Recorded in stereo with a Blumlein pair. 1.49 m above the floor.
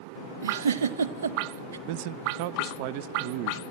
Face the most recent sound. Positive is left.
turn(degrees=-45)